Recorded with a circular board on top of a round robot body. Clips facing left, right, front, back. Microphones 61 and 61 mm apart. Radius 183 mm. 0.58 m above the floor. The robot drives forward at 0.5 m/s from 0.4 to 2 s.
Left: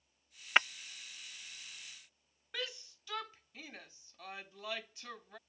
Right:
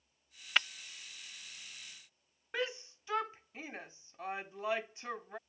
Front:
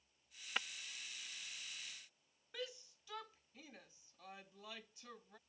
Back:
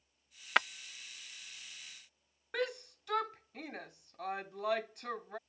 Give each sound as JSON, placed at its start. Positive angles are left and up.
{"t": 0.6, "sound": "breaking glass", "azimuth_deg": 160}
{"t": 2.5, "sound": "a shout", "azimuth_deg": -150}